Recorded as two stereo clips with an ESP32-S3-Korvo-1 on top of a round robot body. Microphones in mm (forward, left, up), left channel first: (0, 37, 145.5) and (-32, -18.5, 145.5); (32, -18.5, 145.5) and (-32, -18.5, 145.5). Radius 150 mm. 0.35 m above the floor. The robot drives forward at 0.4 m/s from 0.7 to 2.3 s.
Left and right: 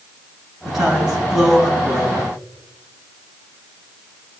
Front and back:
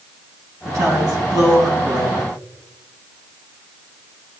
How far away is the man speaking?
About 4.5 m.